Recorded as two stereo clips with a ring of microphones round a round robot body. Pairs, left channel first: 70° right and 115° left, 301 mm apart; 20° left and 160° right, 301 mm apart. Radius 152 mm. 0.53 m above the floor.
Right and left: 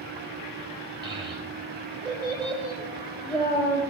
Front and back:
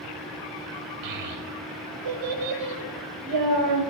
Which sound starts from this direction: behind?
A child speaking, at 1.0 s.